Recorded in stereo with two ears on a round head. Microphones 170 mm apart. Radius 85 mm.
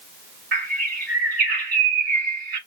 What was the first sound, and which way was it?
A bird, 50° right (ahead or behind).